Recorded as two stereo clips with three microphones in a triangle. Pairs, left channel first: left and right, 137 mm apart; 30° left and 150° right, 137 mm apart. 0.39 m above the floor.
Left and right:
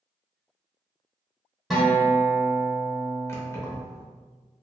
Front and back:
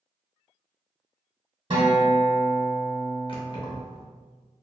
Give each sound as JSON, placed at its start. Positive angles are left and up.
{"t": 1.7, "sound": "a guitar", "azimuth_deg": 180, "distance_m": 0.9}
{"t": 3.3, "sound": "keys jangling", "azimuth_deg": 35, "distance_m": 0.6}